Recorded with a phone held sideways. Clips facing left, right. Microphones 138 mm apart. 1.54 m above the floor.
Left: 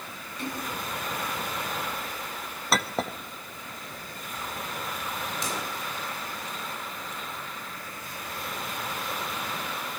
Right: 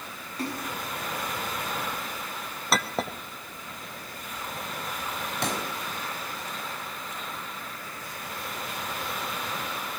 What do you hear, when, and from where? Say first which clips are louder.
0.4 s a splash: right 1 dB; 40° right (ahead or behind), 7 m
2.7 s a clink: even; centre (ahead or behind), 1.2 m
5.4 s a pop: right 6 dB; 65° right (ahead or behind), 4.5 m